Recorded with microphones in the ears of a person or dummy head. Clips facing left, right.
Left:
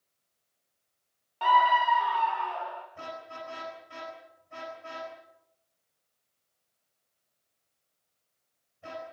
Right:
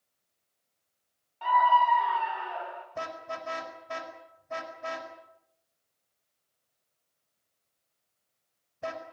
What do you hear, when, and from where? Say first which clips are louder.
1.4 s a scream: even; 65° left (ahead or behind), 0.6 m; by 2.9 s 15° right (ahead or behind), 2 m
3.0 s a car horn: right 4 dB; 80° right, 4.5 m